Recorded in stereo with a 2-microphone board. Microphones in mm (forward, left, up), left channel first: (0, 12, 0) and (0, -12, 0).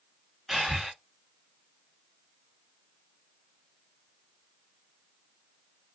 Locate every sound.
0.5 s breathing: 10° right (ahead or behind), 1.3 m